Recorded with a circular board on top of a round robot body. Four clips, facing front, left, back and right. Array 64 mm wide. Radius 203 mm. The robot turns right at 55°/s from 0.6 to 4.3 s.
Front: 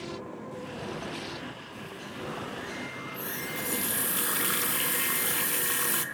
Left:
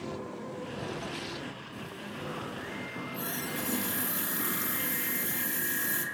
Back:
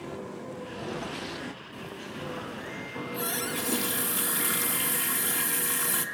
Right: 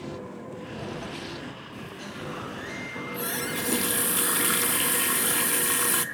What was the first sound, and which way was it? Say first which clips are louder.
A running tap: right 7 dB, back 4 dB; 150° right.